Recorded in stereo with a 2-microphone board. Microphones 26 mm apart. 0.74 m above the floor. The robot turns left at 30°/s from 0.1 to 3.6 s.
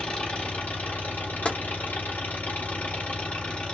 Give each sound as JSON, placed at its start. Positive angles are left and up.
{"t": 0.0, "sound": "an engine running", "azimuth_deg": 145, "distance_m": 1.4}
{"t": 1.4, "sound": "tapping", "side_deg": 45, "distance_m": 0.9}